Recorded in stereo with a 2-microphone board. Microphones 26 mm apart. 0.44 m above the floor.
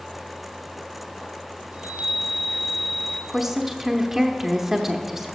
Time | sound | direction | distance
1.7 | a chime | 65° right (ahead or behind) | 1.1 m
3.3 | a woman speaking | 15° right (ahead or behind) | 0.7 m